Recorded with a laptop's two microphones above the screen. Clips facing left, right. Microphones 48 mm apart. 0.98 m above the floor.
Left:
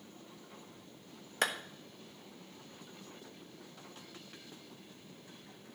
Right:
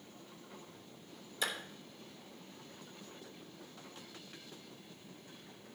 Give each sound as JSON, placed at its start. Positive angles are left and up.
{"t": 1.4, "sound": "a clap", "side_deg": 60, "distance_m": 1.0}